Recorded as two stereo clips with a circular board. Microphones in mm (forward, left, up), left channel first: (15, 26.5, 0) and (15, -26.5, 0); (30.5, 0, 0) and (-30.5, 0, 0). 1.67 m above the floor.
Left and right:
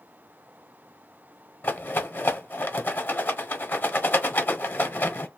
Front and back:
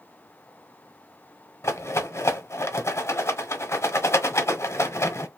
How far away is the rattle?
About 0.9 m.